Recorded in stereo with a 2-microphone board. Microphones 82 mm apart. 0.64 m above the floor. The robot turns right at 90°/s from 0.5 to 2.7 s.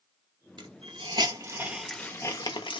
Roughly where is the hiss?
Right.